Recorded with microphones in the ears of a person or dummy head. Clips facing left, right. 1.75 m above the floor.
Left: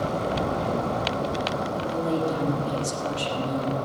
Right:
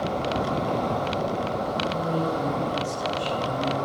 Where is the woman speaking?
75° left (ahead or behind), 3.5 m.